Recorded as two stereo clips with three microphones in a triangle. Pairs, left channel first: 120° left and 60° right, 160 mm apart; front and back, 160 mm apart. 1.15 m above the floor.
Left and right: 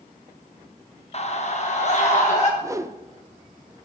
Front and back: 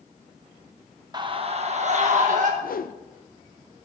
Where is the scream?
130° left, 0.7 m; by 2.5 s 155° left, 1.4 m.